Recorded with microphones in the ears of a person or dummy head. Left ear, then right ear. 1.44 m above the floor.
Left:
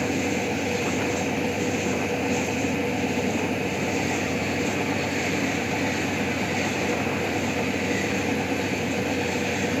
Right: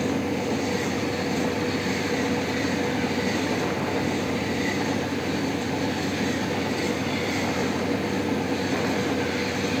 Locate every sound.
0.0 s a fan: 15° left (ahead or behind)